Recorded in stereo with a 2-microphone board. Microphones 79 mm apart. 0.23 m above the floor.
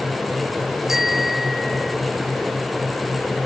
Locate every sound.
0.9 s a bicycle bell: 5° right (ahead or behind); by 2.0 s centre (ahead or behind)